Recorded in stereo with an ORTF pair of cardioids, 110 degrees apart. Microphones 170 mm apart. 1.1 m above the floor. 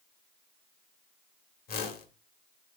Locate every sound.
1.7 s a whoosh: 60° left, 1.5 m